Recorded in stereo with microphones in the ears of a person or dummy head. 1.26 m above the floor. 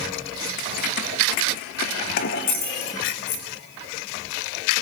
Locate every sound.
0.6 s keys jangling: 55° left (ahead or behind), 0.7 m